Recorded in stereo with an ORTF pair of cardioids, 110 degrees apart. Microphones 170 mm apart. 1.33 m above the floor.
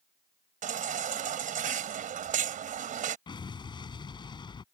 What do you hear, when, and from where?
0.6 s a baby crying: 50° right
3.3 s an explosion: 30° left